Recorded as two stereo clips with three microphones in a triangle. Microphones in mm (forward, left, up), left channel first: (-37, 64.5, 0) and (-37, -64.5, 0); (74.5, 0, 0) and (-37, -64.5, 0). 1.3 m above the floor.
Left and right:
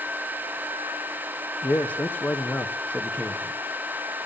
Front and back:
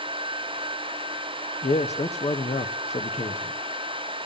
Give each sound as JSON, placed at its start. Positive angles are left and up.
{"t": 1.6, "sound": "a man speaking", "azimuth_deg": 15, "distance_m": 0.7}